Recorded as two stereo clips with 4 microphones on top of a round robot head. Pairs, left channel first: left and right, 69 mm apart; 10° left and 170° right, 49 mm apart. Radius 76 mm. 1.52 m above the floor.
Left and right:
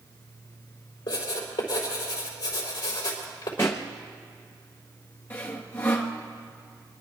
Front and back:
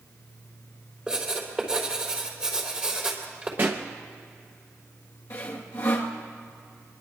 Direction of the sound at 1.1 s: 120° left.